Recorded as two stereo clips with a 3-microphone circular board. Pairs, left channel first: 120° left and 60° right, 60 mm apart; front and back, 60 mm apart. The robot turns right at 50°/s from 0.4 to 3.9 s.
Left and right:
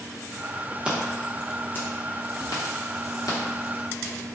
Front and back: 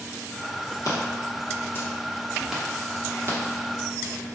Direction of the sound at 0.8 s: 15° left.